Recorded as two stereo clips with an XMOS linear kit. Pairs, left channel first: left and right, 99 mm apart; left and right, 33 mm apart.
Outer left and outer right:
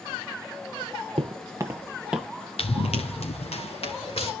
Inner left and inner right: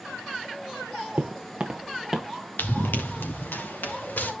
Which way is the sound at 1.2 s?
60° right (ahead or behind).